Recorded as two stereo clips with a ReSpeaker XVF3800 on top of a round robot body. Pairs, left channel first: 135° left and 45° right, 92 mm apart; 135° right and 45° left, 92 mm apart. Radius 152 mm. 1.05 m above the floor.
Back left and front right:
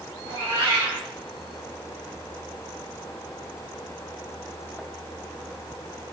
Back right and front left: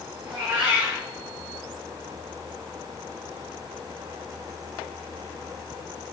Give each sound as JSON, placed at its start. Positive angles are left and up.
{"t": 0.2, "sound": "a cat meowing", "azimuth_deg": -15, "distance_m": 2.0}